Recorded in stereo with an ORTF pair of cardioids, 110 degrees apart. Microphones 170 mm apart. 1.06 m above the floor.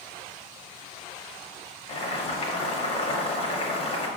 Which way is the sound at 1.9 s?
35° left.